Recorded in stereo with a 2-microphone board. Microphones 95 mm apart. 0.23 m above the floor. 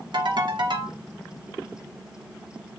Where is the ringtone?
60° right (ahead or behind), 0.9 m.